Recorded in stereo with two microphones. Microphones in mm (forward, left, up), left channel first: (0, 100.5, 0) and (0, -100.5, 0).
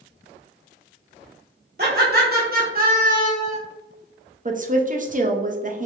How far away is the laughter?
About 1.7 m.